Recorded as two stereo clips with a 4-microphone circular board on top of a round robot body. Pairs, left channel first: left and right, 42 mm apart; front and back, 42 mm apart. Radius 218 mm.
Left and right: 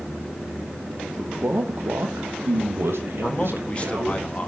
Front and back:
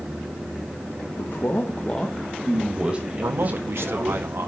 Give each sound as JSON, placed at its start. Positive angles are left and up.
{"t": 1.2, "sound": "a man speaking", "azimuth_deg": -25, "distance_m": 1.9}
{"t": 3.2, "sound": "a man speaking", "azimuth_deg": 155, "distance_m": 1.5}